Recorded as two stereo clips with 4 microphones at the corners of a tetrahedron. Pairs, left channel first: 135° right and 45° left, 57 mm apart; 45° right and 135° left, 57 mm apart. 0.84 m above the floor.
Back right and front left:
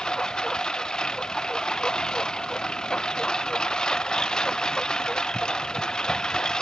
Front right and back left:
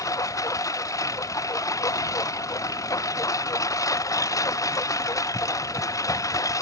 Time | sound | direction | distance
0.0 | a lawn mower | 60° right | ?